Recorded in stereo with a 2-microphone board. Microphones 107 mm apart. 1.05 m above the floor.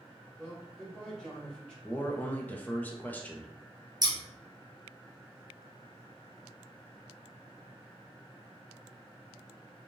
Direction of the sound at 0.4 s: 5° left (ahead or behind).